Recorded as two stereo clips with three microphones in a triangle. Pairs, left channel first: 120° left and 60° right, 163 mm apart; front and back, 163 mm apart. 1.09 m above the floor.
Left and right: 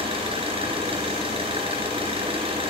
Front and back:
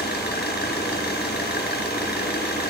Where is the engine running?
5° right, 4 m.